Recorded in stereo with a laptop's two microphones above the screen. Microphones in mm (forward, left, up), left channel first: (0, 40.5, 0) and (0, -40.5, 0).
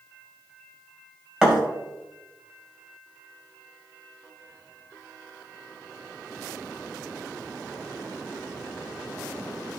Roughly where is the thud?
Centre.